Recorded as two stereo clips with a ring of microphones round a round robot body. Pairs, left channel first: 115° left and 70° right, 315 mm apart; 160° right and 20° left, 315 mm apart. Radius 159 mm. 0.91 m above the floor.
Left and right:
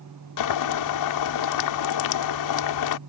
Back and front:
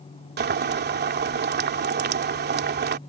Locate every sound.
0.4 s boiling: 85° left